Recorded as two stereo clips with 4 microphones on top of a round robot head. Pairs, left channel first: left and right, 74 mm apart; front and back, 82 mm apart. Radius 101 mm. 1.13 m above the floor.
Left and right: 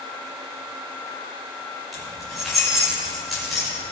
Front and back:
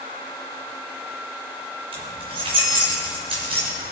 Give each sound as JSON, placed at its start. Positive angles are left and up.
{"t": 1.9, "sound": "keys jangling", "azimuth_deg": 180, "distance_m": 3.0}